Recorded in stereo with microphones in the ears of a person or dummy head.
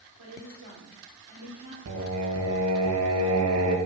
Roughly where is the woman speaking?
Right.